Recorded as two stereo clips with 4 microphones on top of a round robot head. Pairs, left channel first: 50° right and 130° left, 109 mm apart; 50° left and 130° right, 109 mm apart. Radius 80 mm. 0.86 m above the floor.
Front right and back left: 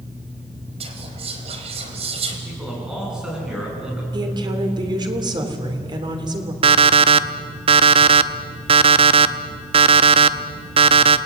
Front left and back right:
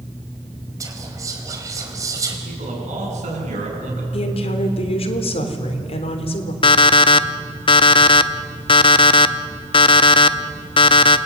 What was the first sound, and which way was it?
Whispering, 165° left.